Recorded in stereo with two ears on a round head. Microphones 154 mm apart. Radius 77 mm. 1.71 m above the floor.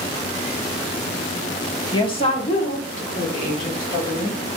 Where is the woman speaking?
25° left (ahead or behind), 0.6 m; by 4.4 s 50° left (ahead or behind), 2 m.